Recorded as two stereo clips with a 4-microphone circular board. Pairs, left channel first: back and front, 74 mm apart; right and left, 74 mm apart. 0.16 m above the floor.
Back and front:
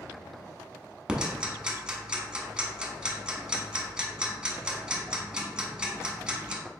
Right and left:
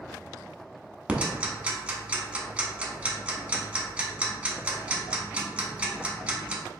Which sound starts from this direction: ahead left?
Ticking, at 1.1 s.